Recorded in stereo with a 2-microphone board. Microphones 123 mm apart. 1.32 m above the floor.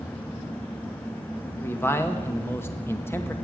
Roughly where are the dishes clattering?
I don't hear dishes clattering.